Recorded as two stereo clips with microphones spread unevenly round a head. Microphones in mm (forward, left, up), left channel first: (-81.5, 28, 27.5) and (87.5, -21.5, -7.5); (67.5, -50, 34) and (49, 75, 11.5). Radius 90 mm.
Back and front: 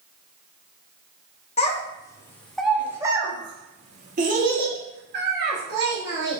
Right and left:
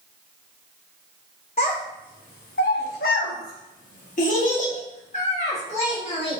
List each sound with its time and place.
1.6 s a child speaking: 140° right, 1.1 m; by 6.4 s 45° right, 2.5 m